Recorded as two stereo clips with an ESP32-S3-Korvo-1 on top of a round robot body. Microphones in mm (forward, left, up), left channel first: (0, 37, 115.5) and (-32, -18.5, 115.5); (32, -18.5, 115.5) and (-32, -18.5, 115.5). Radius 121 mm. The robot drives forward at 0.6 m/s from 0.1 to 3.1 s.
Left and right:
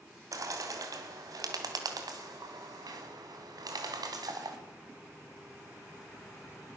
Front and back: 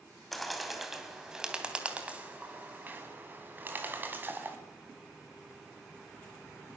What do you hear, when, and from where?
0.3 s a bird: 85° right, 2.5 m; by 4.6 s 120° right, 3 m